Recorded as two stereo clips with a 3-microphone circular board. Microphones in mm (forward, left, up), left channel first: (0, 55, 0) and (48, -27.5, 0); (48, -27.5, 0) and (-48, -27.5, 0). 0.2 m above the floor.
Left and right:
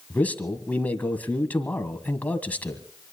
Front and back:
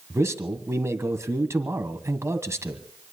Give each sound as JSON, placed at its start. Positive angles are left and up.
{"t": 0.1, "sound": "a man speaking", "azimuth_deg": 175, "distance_m": 1.6}